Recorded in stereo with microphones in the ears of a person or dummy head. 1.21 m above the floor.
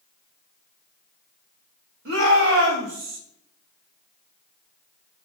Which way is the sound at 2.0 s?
60° right (ahead or behind).